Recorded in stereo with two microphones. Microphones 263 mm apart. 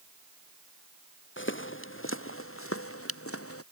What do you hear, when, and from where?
1.4 s footsteps: 45° left (ahead or behind); by 3.6 s 60° left (ahead or behind)